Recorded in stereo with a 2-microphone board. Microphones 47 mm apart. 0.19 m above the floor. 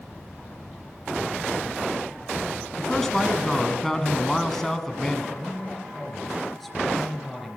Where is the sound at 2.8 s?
10° left (ahead or behind), 1.3 m.